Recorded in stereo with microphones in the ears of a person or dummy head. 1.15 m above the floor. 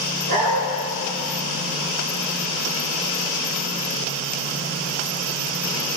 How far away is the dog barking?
About 5.5 m.